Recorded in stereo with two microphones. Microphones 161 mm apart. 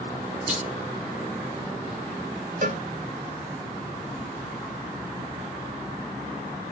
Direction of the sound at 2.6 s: 55° right (ahead or behind).